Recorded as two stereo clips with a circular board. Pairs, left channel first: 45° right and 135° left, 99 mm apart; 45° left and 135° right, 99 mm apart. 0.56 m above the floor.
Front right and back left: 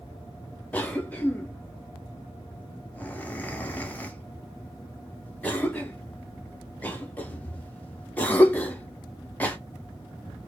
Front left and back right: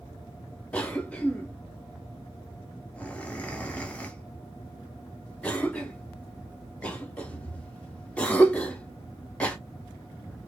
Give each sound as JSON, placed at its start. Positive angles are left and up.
{"t": 0.7, "sound": "a cough", "azimuth_deg": -10, "distance_m": 0.7}